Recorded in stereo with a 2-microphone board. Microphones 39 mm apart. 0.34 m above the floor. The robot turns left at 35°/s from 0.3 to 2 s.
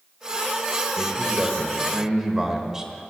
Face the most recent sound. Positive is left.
turn(degrees=-20)  # may be behind; listen again after turning